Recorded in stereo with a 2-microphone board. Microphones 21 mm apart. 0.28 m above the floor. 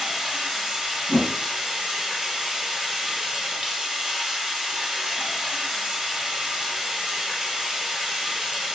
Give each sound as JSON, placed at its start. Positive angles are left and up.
{"t": 0.0, "sound": "running water", "side_deg": -25, "distance_m": 1.9}
{"t": 1.1, "sound": "a whoosh", "side_deg": -55, "distance_m": 1.5}